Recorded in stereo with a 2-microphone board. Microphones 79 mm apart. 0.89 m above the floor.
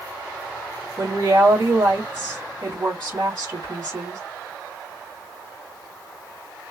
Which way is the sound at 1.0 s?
55° right (ahead or behind).